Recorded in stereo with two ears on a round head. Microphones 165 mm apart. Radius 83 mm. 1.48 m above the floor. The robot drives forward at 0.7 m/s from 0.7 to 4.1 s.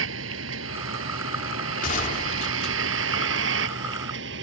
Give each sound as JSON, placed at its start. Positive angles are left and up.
{"t": 0.0, "sound": "a vehicle", "side_deg": -80}
{"t": 1.8, "sound": "a gunshot", "side_deg": 45}